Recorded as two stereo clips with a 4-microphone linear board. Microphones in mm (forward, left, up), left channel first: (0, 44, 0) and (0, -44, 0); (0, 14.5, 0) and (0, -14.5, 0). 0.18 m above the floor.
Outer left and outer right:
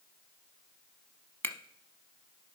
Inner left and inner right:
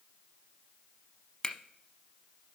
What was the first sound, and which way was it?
A finger snap, 20° left (ahead or behind).